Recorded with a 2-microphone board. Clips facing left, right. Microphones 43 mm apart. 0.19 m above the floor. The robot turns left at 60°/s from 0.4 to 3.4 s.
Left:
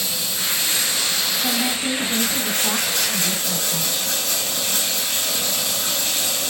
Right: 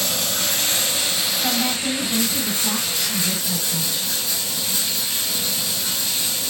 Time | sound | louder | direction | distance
0.0 | running water | right 2 dB | 115° right | 0.9 m
1.4 | a woman speaking | right 1 dB | straight behind | 1.5 m